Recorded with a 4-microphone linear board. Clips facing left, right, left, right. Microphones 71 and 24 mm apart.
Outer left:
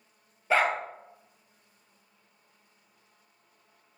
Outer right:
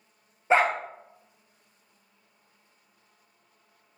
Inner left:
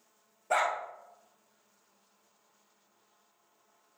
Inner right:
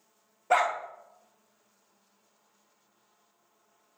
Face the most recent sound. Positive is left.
turn(degrees=-25)  # may be behind; listen again after turning